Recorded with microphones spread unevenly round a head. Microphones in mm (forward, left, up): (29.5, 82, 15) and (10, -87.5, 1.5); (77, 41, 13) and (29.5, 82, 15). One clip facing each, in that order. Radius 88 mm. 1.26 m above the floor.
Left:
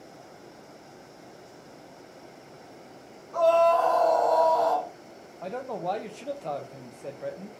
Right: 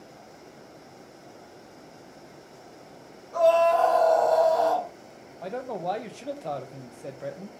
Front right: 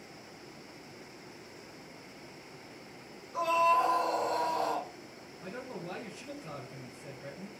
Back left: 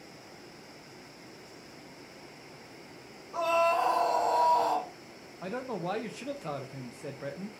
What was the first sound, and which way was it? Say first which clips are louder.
A scream: right 1 dB, even; 165° right.